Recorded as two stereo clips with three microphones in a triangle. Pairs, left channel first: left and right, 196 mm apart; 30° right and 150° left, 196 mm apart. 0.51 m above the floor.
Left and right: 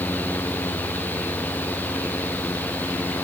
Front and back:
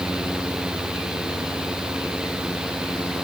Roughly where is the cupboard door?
I don't hear a cupboard door.